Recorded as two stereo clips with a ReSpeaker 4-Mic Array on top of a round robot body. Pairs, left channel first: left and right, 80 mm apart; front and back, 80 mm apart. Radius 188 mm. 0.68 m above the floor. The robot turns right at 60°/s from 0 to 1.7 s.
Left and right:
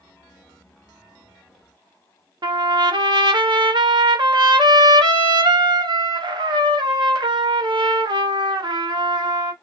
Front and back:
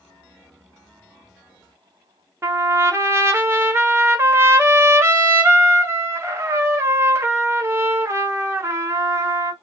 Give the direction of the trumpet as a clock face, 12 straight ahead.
4 o'clock.